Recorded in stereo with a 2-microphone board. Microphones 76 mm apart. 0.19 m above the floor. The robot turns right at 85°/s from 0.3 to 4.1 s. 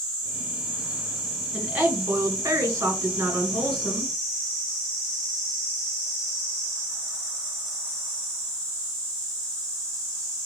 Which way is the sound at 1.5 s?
165° right.